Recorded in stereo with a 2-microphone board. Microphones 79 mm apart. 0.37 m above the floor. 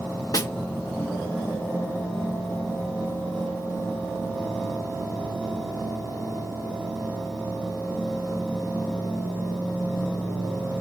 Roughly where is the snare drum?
Left.